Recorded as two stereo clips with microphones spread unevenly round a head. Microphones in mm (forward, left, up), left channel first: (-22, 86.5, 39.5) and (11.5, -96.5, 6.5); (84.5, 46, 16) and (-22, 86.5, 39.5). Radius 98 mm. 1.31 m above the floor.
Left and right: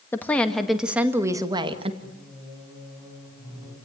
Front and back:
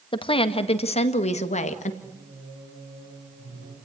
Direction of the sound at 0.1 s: 20° left.